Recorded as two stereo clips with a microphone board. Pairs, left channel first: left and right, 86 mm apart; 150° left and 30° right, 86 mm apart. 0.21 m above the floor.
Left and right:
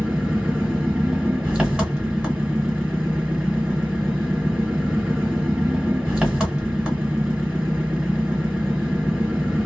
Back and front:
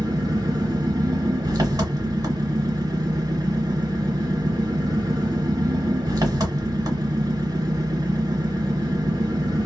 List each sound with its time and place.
0.0 s an engine running: 15° right, 1.5 m